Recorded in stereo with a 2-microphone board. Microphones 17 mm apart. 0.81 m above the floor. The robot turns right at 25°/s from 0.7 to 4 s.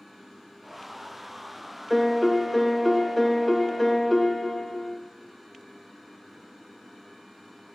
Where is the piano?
5° right (ahead or behind), 0.6 m; by 5.0 s 15° left (ahead or behind), 0.6 m.